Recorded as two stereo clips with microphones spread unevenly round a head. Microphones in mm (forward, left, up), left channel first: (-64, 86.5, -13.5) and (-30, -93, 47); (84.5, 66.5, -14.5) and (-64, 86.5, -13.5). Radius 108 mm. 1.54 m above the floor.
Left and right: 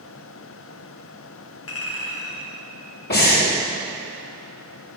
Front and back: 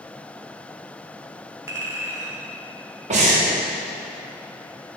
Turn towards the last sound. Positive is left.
turn(degrees=135)